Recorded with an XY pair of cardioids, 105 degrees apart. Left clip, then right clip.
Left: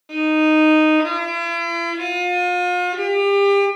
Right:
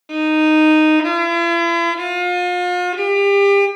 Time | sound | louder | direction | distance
0.1 | a violin | right 2 dB | 35° right | 0.7 m